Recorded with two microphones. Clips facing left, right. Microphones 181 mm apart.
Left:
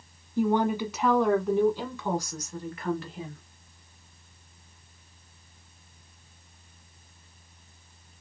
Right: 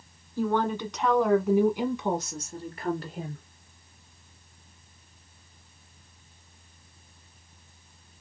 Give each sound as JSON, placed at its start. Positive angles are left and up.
{"t": 0.4, "sound": "a woman speaking", "side_deg": 20, "distance_m": 1.4}